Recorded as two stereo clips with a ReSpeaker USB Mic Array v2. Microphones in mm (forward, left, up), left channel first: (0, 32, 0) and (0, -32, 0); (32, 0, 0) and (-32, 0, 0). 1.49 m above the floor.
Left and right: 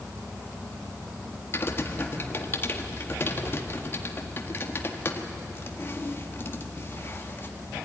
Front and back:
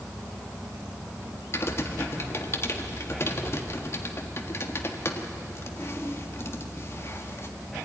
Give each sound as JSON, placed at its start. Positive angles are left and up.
{"t": 1.5, "sound": "typing on a keyboard", "azimuth_deg": 40, "distance_m": 1.6}